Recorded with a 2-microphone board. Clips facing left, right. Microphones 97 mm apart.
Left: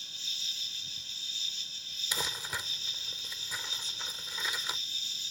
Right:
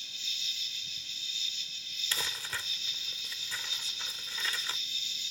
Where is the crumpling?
15° left (ahead or behind).